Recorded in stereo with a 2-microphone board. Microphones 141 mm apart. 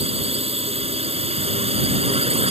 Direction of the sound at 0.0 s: 45° right (ahead or behind).